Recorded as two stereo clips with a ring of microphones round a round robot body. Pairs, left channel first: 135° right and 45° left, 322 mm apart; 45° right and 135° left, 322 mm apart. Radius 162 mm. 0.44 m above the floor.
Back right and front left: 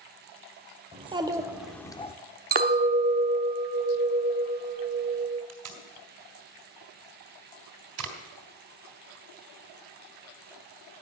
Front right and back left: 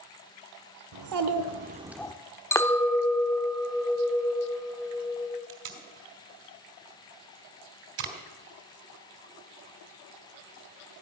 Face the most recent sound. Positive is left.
turn(degrees=85)